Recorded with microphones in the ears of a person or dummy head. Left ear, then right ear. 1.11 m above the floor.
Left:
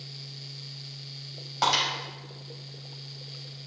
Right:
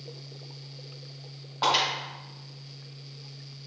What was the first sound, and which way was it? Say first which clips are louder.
Breaking glass: even; 70° left (ahead or behind).